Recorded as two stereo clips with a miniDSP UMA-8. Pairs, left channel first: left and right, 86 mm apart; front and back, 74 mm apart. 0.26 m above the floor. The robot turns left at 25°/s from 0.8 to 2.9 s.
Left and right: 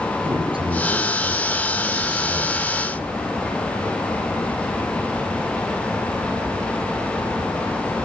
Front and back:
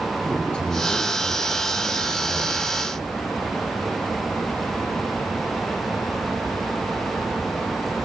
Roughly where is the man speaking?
Right.